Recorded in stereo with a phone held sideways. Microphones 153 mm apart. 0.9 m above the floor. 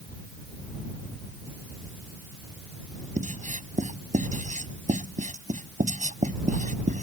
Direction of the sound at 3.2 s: 55° right (ahead or behind).